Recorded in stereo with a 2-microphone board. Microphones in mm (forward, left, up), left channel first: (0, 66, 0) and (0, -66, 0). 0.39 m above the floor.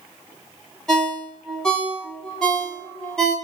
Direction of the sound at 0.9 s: 5° left (ahead or behind).